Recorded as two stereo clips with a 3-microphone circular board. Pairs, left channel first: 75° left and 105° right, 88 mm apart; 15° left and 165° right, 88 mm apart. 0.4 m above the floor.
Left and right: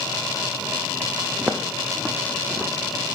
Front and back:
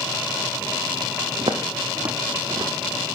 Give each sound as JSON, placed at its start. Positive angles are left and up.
{"t": 1.4, "sound": "footsteps", "azimuth_deg": 180, "distance_m": 1.2}